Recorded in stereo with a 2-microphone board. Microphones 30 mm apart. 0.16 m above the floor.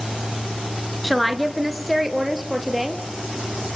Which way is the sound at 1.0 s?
5° left (ahead or behind).